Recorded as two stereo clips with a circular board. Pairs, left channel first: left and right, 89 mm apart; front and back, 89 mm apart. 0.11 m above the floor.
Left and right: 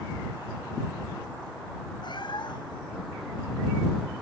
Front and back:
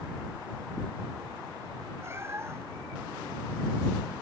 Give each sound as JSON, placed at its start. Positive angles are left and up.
{"t": 2.0, "sound": "a cat meowing", "azimuth_deg": 120}